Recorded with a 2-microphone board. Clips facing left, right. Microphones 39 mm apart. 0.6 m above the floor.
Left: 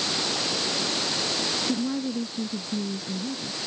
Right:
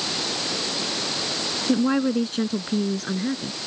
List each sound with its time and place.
1.7 s a woman speaking: 70° right (ahead or behind)